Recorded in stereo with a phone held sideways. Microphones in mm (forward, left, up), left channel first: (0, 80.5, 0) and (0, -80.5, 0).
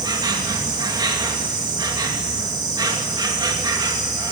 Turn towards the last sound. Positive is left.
turn(degrees=-25)  # may be behind; listen again after turning